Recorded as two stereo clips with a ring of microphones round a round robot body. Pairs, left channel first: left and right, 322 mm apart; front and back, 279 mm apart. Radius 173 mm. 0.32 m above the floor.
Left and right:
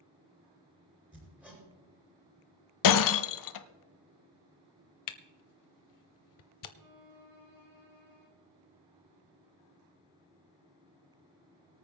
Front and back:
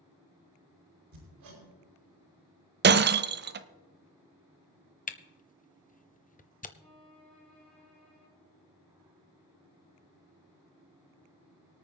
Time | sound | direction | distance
1.1 | hammering | 175° right | 5.5 m
2.8 | breaking glass | 125° left | 0.7 m
5.1 | a camera shutter | 65° left | 1.0 m
6.8 | a violin | 90° right | 6.5 m